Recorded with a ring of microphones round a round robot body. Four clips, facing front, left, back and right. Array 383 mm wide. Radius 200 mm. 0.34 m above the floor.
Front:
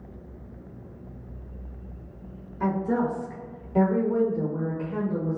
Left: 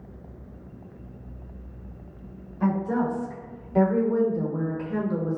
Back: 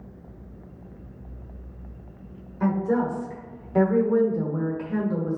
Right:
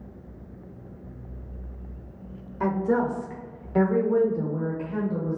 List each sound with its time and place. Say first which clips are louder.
2.6 s a woman speaking: right 1 dB, back 2 dB; 90° right, 1.3 m; by 5.4 s 135° left, 1.1 m